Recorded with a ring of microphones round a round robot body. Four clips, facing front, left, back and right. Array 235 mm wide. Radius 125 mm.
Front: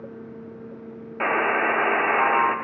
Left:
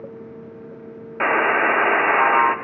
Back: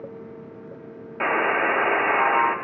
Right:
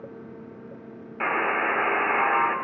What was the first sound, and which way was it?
A buzzer, 90° left.